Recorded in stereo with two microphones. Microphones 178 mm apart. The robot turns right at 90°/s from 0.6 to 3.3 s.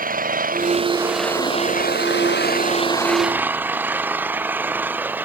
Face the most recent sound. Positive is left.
turn(degrees=-170)